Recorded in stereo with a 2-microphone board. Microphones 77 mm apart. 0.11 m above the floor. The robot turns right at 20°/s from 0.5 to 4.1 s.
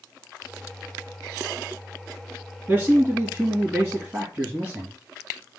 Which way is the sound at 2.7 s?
25° right (ahead or behind).